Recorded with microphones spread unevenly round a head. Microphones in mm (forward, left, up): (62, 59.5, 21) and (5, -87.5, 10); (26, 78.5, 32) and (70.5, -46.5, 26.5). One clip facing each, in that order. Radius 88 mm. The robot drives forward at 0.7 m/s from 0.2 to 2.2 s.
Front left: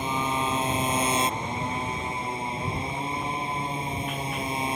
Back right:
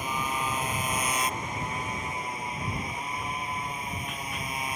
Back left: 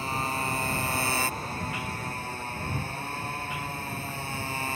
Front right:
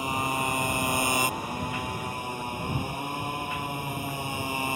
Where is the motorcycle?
5° left.